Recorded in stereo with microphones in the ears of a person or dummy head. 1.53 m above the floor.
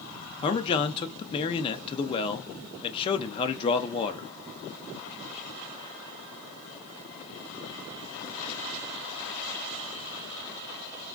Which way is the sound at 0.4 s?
30° left (ahead or behind).